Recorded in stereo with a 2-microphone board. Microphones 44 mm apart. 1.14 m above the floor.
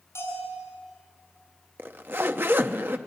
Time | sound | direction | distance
0.1 | a bell | 80° left | 7 m
1.8 | a zipper | 55° right (ahead or behind) | 0.8 m